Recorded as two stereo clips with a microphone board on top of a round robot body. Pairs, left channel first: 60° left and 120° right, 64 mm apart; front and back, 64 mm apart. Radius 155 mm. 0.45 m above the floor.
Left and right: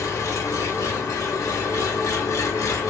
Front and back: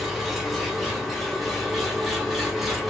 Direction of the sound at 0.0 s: 90° left.